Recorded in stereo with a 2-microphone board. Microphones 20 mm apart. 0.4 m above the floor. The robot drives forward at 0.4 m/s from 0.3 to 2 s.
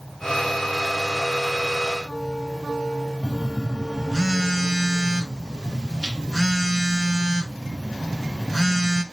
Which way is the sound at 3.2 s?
35° right (ahead or behind).